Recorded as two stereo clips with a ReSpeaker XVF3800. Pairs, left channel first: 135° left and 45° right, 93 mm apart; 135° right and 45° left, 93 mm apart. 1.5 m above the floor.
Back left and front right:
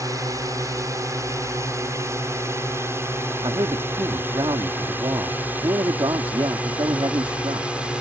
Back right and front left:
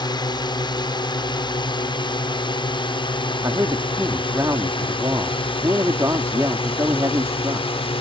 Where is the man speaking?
10° right.